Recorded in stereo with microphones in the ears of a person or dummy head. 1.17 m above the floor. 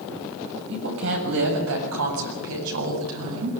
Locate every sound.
0.7 s a woman speaking: 65° right (ahead or behind), 6.5 m; by 3.5 s 85° right, 8 m